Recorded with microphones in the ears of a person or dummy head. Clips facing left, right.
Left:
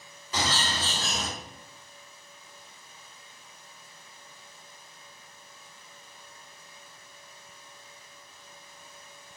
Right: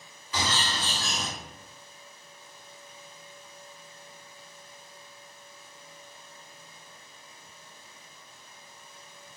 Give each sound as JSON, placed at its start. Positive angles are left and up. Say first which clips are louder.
{"t": 0.3, "sound": "a bird", "louder": "left 1 dB", "side_deg": 35, "distance_m": 1.5}